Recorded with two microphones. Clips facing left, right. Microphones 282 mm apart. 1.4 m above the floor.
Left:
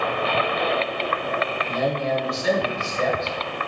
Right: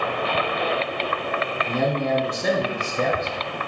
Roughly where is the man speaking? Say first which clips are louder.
Right 3 dB; right.